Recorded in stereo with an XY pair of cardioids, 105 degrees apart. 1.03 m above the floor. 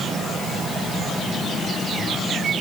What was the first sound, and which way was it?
Only background noise.